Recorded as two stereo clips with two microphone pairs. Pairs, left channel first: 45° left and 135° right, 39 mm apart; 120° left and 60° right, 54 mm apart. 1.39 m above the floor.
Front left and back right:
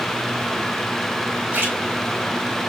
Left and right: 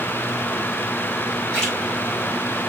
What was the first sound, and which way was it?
A splash, 160° right.